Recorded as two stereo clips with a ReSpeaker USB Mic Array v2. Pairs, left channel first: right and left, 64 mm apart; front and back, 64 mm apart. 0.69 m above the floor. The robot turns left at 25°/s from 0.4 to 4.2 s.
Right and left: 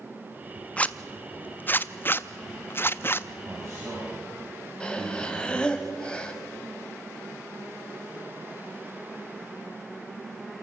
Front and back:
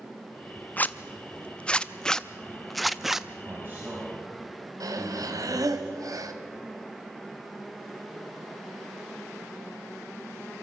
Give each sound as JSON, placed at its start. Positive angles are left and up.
{"t": 0.8, "sound": "a zipper", "azimuth_deg": -35, "distance_m": 0.5}
{"t": 3.4, "sound": "a man speaking", "azimuth_deg": 130, "distance_m": 5.5}
{"t": 4.8, "sound": "breathing", "azimuth_deg": -165, "distance_m": 1.5}